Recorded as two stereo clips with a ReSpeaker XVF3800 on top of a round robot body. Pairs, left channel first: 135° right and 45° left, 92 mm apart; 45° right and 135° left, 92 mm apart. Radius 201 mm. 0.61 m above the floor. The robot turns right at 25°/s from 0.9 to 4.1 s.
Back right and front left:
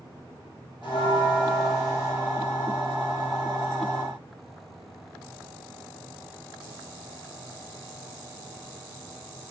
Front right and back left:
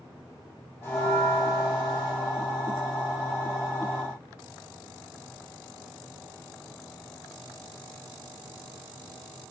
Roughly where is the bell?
Right.